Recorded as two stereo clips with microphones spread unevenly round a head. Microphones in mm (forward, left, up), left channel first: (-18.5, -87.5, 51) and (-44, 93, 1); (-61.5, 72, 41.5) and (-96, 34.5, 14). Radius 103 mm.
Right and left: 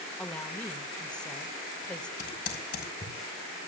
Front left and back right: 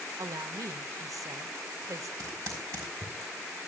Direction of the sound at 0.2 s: 160° right.